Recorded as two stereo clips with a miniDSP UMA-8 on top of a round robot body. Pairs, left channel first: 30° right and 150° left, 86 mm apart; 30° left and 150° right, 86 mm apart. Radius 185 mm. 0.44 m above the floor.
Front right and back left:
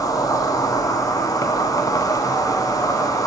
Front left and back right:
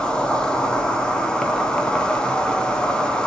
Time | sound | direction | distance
0.0 | an insect | 45° right | 1.6 m